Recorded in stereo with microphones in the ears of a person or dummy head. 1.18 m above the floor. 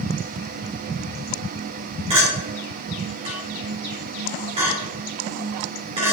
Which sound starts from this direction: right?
A clink, at 2.1 s.